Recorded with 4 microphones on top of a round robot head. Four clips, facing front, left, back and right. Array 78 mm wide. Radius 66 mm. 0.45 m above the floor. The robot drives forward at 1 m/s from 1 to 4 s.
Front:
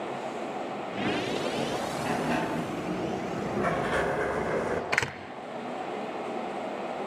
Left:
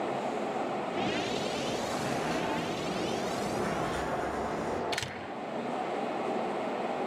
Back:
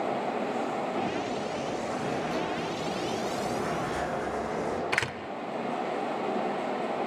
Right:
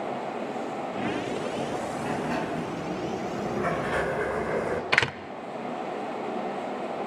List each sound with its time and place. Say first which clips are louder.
2.0 s a sliding door: right 2 dB, front 2 dB; 30° right, 6 m; by 4.8 s 45° right, 4 m
4.9 s a door slam: right 11 dB, front 1 dB; 80° right, 1.2 m